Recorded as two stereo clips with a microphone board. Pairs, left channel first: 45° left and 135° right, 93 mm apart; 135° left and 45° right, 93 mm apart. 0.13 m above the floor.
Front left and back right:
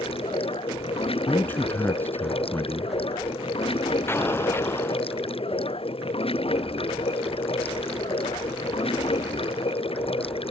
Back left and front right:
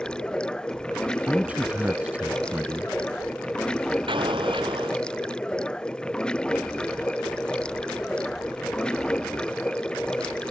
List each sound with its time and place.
0.0 s running water: 55° left
1.3 s a man speaking: 10° left
4.1 s an explosion: 20° right